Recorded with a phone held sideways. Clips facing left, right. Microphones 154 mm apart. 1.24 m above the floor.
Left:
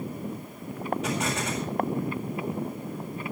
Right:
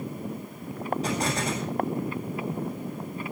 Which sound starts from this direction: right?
An explosion, at 1.0 s.